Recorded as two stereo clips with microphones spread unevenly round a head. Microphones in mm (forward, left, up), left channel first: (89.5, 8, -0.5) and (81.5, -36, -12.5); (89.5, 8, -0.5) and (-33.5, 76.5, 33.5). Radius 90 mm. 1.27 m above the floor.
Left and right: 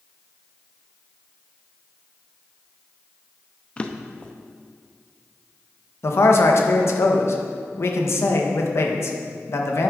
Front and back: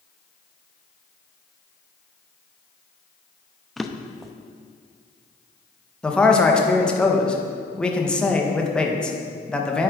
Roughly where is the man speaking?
Ahead left.